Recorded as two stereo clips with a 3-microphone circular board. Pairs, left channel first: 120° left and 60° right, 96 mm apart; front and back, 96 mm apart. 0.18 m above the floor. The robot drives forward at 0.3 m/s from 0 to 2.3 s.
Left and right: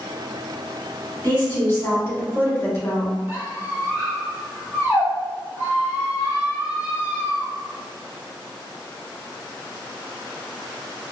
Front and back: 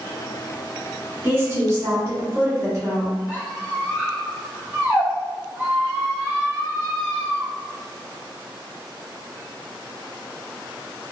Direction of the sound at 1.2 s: 145° left.